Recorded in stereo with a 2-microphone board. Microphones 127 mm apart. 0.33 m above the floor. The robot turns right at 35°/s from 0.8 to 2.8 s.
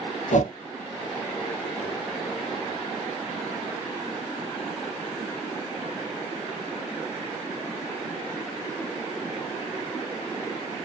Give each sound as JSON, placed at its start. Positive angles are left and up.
{"t": 0.3, "sound": "a whoosh", "side_deg": 70, "distance_m": 0.6}